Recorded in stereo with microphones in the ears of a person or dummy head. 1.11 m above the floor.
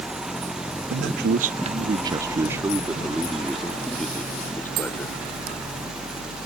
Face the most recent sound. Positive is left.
turn(degrees=5)  # may be behind; listen again after turning